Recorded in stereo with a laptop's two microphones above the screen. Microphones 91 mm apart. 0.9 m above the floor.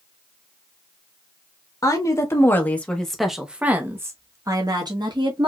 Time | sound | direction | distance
1.8 | a woman speaking | 40° left (ahead or behind) | 1.2 m